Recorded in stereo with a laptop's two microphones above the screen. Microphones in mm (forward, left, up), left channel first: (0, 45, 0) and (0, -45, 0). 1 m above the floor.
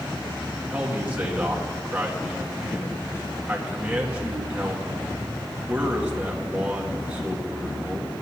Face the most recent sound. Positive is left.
turn(degrees=-15)  # may be behind; listen again after turning